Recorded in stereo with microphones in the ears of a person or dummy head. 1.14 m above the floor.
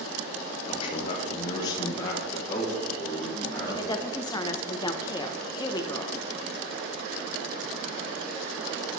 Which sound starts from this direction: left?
A man speaking, at 0.7 s.